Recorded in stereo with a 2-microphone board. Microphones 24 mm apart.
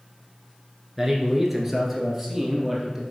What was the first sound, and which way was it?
A man speaking, 10° right (ahead or behind).